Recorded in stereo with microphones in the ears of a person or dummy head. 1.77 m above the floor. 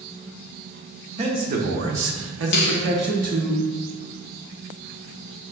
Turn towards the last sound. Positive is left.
turn(degrees=55)  # may be behind; listen again after turning